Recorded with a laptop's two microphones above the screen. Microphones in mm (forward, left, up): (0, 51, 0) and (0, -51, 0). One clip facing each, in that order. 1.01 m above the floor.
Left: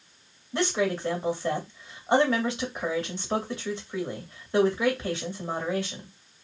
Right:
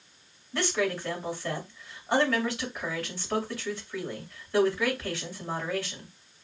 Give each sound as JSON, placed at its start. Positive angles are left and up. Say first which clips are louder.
{"t": 0.5, "sound": "a woman speaking", "louder": "left 2 dB", "side_deg": 25, "distance_m": 1.8}